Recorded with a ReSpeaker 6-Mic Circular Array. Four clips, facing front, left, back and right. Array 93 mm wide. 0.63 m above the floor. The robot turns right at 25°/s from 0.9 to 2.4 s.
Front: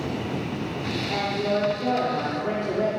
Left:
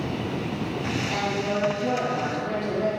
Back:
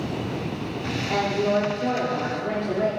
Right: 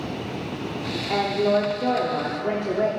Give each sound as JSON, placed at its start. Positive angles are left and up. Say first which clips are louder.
{"t": 1.1, "sound": "a woman speaking", "louder": "right 8 dB, back 3 dB", "azimuth_deg": -115, "distance_m": 1.3}